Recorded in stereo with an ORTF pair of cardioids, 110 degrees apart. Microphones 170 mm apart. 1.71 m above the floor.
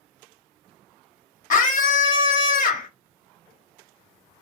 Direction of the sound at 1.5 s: 50° left.